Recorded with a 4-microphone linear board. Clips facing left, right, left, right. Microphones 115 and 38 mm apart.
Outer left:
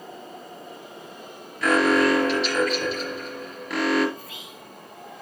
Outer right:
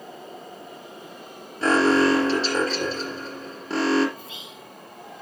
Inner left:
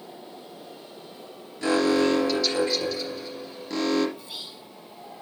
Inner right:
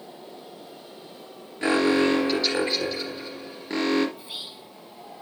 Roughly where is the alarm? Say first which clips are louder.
Outer right 1 dB, inner right 1 dB; right.